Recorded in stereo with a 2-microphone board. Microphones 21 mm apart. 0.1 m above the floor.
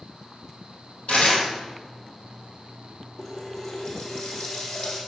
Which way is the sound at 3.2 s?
60° left (ahead or behind).